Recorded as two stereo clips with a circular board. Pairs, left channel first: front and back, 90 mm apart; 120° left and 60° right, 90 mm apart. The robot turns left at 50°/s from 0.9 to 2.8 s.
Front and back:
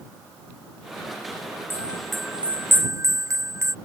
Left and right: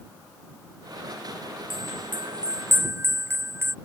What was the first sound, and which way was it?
A bell, 65° right.